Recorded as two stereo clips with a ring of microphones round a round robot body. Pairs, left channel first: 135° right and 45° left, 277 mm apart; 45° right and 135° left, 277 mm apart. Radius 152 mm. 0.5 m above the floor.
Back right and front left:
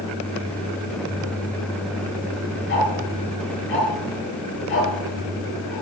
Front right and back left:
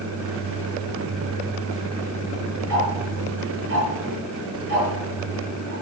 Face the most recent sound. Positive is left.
turn(degrees=180)